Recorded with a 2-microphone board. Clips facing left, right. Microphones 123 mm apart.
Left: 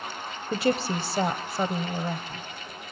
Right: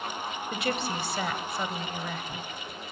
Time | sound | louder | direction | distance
0.5 | a woman speaking | left 7 dB | 35° left (ahead or behind) | 1.1 m